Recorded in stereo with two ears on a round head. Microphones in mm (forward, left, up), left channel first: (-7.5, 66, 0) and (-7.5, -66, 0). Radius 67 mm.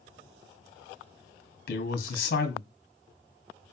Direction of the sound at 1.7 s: 70° left (ahead or behind).